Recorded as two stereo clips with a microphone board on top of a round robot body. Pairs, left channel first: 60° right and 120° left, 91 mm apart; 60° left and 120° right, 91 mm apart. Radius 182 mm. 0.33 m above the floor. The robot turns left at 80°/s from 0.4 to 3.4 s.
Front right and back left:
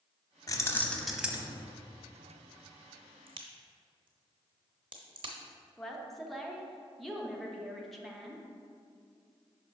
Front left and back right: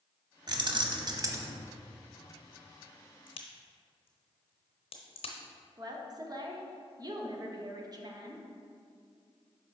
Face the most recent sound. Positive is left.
turn(degrees=-150)